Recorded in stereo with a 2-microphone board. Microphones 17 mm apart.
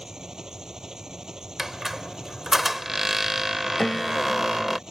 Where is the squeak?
15° right (ahead or behind).